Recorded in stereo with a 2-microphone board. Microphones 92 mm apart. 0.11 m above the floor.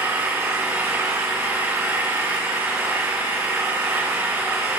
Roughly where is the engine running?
Centre.